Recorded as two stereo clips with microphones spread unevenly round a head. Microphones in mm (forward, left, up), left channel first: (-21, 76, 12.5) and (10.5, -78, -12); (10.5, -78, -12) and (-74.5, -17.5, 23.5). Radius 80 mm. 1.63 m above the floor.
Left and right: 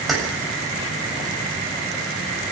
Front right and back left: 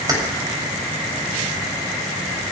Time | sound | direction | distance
0.1 | keys jangling | 170° right | 7 m